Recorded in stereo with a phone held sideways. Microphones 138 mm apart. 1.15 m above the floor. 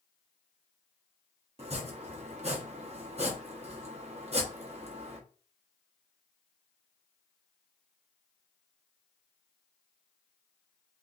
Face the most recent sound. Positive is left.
turn(degrees=-45)  # may be behind; listen again after turning